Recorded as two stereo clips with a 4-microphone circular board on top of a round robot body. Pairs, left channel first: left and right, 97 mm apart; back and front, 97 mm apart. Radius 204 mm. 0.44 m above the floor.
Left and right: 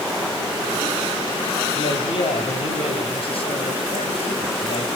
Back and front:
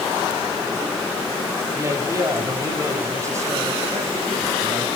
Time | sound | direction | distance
1.8 | a man speaking | 60° left | 4 m